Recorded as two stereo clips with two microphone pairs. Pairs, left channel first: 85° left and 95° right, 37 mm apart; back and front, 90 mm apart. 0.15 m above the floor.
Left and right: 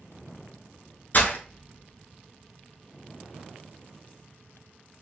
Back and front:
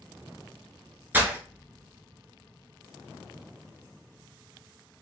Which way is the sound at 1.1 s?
65° left.